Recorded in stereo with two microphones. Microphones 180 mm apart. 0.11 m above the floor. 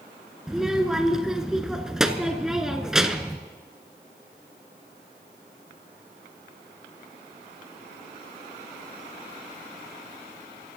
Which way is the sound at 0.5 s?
5° right (ahead or behind).